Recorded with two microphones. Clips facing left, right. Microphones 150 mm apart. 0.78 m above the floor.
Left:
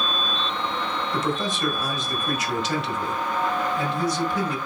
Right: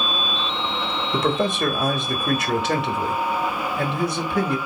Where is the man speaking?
60° right (ahead or behind), 1.0 m.